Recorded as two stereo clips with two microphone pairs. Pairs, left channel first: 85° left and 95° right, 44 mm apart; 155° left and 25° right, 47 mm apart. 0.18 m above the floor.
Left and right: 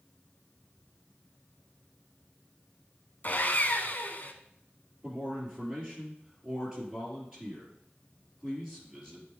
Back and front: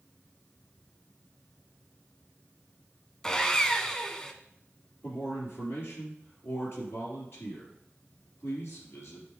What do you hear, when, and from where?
3.2 s sawing: 90° left, 0.6 m
5.0 s a man speaking: 175° right, 3.5 m